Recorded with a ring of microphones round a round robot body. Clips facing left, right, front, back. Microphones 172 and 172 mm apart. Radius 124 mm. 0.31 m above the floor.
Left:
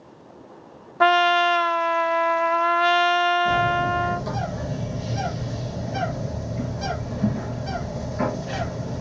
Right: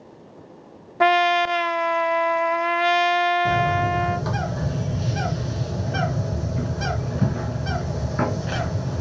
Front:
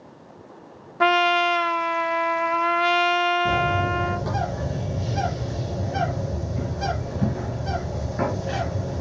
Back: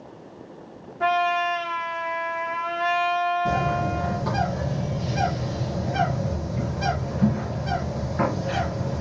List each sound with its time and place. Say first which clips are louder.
1.0 s a trumpet: even, front 2 dB; 15° right, 0.5 m
3.5 s a bird: right 1 dB, front 1 dB; 75° right, 3 m